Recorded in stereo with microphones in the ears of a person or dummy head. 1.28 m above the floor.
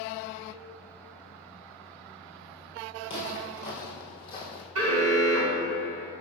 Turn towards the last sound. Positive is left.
turn(degrees=-75)  # may be behind; listen again after turning